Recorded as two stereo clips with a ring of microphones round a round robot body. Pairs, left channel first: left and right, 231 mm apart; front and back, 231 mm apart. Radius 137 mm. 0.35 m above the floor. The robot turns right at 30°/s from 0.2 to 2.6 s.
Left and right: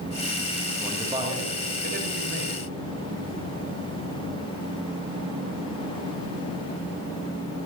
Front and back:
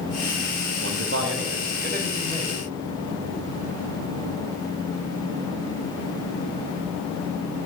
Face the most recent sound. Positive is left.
turn(degrees=-115)